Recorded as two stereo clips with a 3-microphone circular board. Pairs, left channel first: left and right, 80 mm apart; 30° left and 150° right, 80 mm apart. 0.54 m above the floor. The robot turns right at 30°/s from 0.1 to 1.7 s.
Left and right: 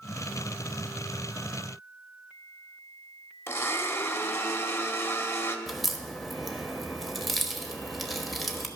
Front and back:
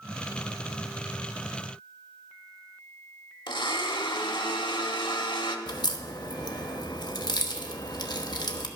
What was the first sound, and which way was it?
A blender, 30° left.